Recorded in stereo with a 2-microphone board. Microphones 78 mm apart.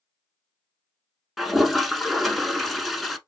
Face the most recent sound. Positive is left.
turn(degrees=0)  # may be behind; listen again after turning